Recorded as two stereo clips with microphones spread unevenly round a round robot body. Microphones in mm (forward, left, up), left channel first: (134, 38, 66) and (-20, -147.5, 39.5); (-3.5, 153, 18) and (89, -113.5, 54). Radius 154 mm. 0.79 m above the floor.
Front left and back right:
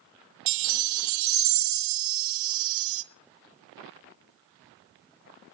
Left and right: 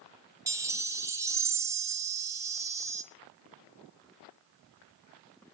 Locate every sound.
0.5 s a chime: 145° right, 0.6 m